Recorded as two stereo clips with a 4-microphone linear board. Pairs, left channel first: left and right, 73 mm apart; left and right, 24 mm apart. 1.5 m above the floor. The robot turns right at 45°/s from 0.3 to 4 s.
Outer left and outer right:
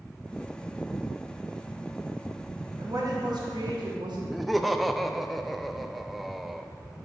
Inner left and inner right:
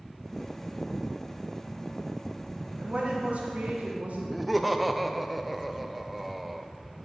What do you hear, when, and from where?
2.8 s a woman speaking: 135° right, 1.7 m; by 4.2 s 80° right, 1.7 m
4.3 s laughter: centre (ahead or behind), 0.6 m